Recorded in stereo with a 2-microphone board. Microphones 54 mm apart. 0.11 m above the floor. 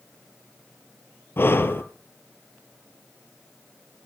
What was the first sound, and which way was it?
Breathing, 45° left (ahead or behind).